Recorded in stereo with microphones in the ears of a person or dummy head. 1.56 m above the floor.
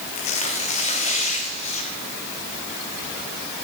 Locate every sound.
0.1 s tearing paper: 45° left (ahead or behind), 2.5 m